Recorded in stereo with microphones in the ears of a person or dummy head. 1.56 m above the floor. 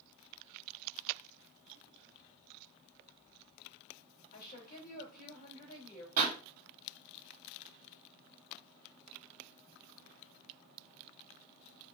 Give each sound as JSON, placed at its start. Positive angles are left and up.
{"t": 4.3, "sound": "a woman speaking", "side_deg": 55, "distance_m": 2.5}
{"t": 6.2, "sound": "a pop", "side_deg": -45, "distance_m": 1.4}